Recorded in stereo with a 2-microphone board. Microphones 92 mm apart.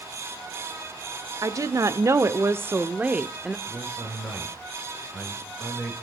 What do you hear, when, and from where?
1.4 s a woman speaking: 40° right (ahead or behind), 1.1 m; by 3.6 s 5° right (ahead or behind), 0.9 m
3.7 s a man speaking: 5° right (ahead or behind), 7.5 m